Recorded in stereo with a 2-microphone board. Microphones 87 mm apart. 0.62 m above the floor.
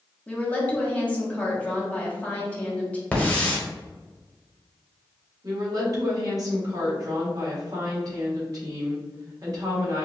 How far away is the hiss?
About 1.1 m.